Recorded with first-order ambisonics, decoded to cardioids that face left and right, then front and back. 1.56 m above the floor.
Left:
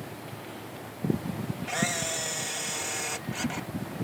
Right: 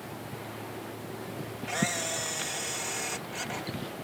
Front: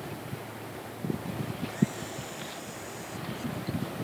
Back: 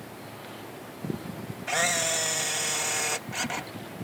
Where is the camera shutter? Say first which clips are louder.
Left 1 dB, back 12 dB; 175° left.